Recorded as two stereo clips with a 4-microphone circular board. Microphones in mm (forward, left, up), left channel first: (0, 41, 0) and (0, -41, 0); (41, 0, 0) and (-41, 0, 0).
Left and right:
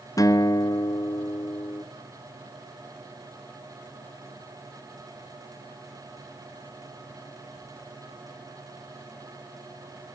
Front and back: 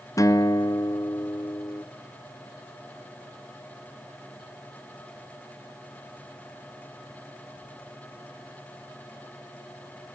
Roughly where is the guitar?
Ahead left.